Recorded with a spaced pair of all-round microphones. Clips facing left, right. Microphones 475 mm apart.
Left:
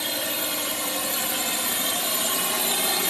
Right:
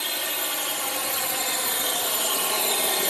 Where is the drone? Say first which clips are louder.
Left 4 dB; 60° left (ahead or behind); by 3.1 s 25° left (ahead or behind).